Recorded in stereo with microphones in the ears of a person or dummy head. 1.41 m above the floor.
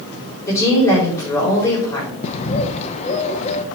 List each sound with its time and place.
0.5 s a woman speaking: 15° left (ahead or behind), 4.5 m
2.2 s a bird: 35° left (ahead or behind), 0.8 m